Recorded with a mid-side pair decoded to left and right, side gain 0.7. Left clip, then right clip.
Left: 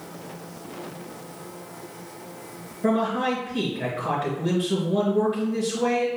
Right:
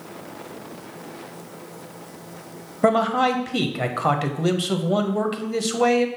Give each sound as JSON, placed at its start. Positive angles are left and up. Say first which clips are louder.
{"t": 2.8, "sound": "a man speaking", "louder": "right 5 dB", "azimuth_deg": -65, "distance_m": 0.9}